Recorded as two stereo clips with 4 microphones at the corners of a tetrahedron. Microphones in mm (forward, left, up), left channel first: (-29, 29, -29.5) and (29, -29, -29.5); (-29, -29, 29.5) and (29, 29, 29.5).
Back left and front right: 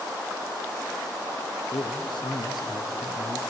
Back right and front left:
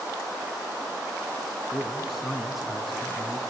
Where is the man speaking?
135° left, 2.5 m.